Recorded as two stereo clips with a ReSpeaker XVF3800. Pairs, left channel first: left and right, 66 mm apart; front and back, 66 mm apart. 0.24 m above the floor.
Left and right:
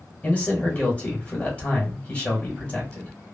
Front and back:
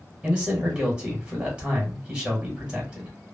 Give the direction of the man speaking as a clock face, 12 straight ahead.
8 o'clock.